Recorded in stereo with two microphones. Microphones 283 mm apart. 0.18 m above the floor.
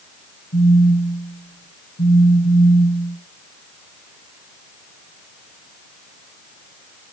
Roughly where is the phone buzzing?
Left.